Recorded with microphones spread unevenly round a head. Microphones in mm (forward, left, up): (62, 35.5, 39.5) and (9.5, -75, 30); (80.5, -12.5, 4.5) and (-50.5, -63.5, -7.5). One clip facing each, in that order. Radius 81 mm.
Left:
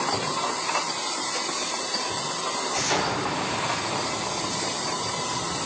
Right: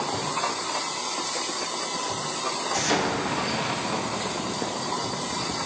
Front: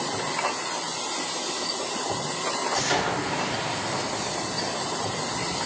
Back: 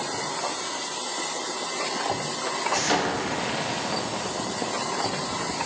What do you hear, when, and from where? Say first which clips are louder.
2.7 s an explosion: right 2 dB, back 2 dB; 135° right, 1.7 m